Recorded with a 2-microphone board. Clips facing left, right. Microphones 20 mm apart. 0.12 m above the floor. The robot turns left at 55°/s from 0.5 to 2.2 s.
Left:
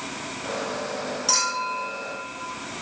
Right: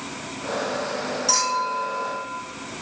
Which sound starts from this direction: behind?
A clink, at 1.3 s.